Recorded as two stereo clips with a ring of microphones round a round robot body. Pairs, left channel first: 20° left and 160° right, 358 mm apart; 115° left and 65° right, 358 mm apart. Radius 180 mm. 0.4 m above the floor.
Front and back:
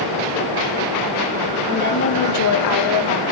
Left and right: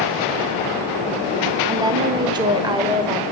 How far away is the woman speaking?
About 0.9 m.